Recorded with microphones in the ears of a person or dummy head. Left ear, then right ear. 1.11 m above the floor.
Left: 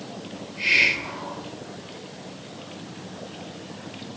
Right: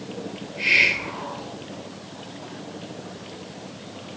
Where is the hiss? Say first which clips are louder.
Right 1 dB; 5° right (ahead or behind), 2 m.